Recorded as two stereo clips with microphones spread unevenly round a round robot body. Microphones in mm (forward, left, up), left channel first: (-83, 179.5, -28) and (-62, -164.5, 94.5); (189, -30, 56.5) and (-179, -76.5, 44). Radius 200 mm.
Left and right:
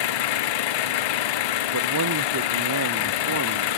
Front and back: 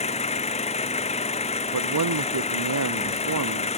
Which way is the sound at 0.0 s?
80° left.